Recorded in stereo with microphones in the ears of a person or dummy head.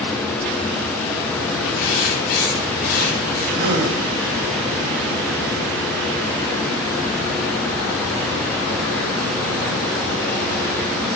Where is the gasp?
70° right (ahead or behind), 4 m.